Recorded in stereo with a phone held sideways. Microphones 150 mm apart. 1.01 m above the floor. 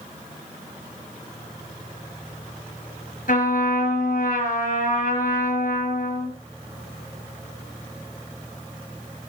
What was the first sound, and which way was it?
A trumpet, 60° left (ahead or behind).